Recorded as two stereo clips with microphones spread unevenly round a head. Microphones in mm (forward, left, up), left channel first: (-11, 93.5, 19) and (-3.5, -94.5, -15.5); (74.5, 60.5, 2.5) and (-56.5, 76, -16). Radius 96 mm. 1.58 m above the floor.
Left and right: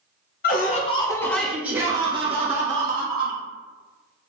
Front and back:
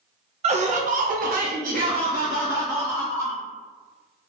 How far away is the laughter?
About 0.7 m.